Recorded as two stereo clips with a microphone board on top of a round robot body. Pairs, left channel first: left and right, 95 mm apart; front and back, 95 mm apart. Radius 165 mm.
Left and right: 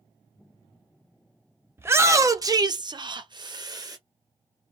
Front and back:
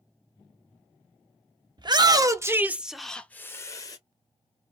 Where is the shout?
150° right, 1.0 m; by 4.0 s 45° right, 0.9 m.